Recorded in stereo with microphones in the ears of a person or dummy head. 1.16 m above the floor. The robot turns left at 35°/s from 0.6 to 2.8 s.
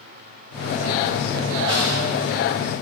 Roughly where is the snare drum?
Right.